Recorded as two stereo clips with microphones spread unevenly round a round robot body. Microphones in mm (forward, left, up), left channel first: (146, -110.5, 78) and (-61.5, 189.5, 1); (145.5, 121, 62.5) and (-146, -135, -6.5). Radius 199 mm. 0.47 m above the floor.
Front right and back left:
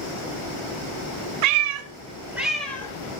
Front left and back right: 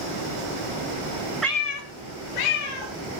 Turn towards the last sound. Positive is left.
turn(degrees=25)